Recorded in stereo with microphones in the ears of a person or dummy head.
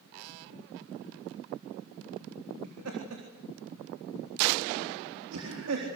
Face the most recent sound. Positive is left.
turn(degrees=-85)